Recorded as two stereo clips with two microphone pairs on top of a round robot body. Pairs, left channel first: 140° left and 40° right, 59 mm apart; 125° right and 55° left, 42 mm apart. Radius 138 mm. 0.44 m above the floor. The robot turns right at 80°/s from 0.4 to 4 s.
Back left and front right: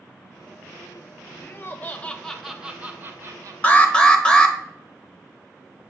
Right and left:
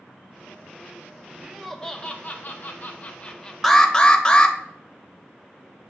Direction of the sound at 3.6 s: 155° left.